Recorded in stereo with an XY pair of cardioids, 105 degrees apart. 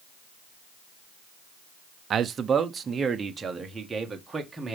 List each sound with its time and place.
2.1 s a man speaking: 55° right, 0.7 m; by 4.8 s 20° right, 2.5 m